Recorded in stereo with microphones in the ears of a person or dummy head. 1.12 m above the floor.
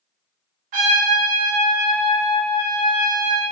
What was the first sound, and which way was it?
A trumpet, 40° right (ahead or behind).